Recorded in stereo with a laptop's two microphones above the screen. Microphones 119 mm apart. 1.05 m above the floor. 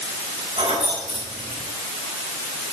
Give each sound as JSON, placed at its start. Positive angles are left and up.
{"t": 0.6, "sound": "keys jangling", "side_deg": -75, "distance_m": 7.0}